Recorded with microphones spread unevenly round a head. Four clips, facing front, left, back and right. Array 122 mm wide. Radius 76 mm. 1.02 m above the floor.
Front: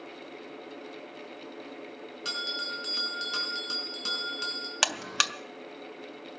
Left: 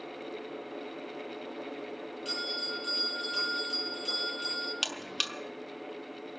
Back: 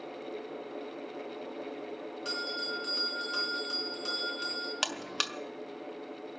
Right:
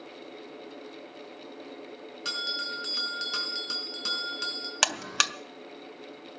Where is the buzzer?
75° right, 0.7 m.